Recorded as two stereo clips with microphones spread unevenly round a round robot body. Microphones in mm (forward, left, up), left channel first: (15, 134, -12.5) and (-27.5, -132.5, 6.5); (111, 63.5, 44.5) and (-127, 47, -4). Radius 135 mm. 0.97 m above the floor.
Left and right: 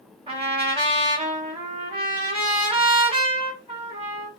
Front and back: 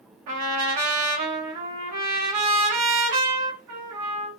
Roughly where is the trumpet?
Behind.